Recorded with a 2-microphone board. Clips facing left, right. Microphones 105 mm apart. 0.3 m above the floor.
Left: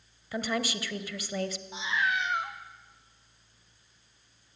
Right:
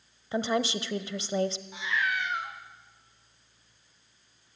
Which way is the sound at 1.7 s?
20° left (ahead or behind).